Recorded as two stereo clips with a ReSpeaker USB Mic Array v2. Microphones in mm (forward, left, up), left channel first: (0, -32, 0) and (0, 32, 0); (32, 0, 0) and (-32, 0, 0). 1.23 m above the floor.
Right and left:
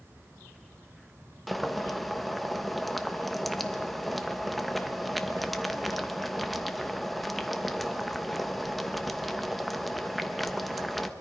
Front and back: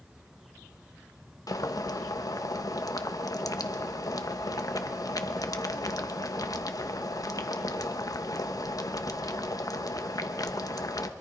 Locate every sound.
1.5 s boiling: straight ahead, 0.9 m